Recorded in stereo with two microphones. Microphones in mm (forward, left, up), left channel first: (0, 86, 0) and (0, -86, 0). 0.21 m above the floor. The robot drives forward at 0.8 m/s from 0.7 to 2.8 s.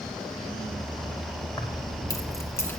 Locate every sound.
1.6 s keys jangling: 25° left (ahead or behind), 0.8 m; by 2.8 s 15° left (ahead or behind), 1.4 m